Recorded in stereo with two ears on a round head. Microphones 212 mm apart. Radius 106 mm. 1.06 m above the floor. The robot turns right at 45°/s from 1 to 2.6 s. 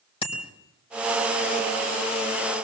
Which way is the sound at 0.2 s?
25° left (ahead or behind).